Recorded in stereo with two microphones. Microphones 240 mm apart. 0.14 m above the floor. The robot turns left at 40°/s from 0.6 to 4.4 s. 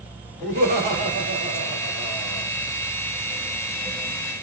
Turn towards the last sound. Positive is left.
turn(degrees=100)